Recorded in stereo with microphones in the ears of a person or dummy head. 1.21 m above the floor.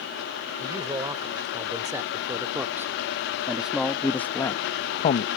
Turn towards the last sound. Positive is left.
turn(degrees=45)  # may be behind; listen again after turning